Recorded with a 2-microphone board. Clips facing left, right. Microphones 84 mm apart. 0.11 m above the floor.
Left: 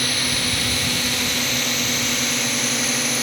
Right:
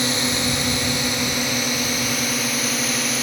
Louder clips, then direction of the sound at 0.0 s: Right 3 dB; 25° right (ahead or behind).